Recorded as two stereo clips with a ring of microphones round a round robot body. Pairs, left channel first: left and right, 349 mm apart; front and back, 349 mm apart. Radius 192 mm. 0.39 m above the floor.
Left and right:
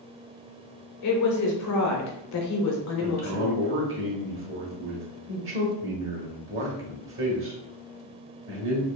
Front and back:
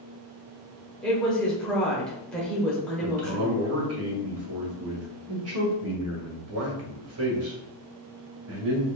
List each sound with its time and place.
1.0 s a woman speaking: 85° left, 1.1 m
3.0 s a man speaking: 140° right, 1.8 m